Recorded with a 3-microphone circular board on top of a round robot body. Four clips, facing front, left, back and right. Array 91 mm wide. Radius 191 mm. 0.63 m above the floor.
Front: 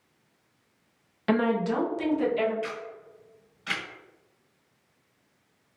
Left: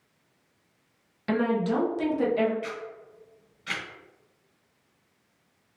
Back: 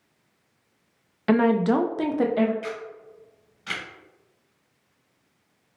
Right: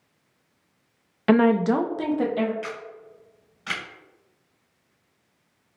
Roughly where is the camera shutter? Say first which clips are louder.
Even, back 2 dB; right.